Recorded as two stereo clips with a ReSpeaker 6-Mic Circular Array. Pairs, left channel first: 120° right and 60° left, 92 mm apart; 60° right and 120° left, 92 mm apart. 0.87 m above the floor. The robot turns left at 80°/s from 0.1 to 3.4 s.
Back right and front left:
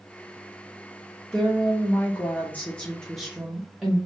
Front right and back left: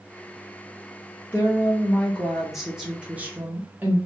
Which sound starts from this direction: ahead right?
A woman speaking, at 1.3 s.